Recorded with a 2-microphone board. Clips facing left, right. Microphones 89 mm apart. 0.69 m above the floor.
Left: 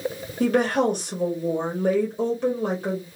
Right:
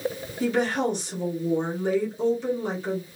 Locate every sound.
0.4 s a woman speaking: 50° left (ahead or behind), 1.4 m